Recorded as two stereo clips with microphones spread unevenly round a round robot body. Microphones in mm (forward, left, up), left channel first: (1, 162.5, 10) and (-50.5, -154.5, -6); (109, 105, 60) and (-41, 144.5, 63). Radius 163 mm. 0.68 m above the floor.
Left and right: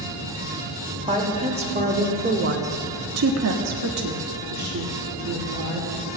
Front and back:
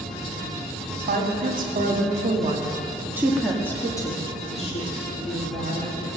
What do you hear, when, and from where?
1.1 s a woman speaking: 175° right, 2.5 m; by 5.9 s 45° right, 3 m